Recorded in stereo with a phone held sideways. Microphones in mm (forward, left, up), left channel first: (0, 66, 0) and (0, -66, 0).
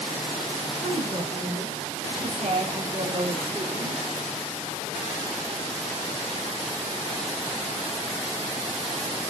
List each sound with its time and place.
0.8 s a woman speaking: 65° right (ahead or behind), 6 m; by 4.0 s 55° right (ahead or behind), 4 m